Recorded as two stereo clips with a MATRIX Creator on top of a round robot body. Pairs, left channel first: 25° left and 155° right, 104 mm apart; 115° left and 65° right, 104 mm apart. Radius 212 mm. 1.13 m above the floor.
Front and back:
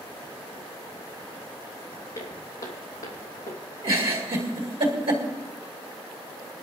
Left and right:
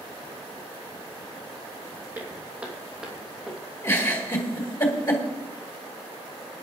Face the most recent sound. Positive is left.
turn(degrees=170)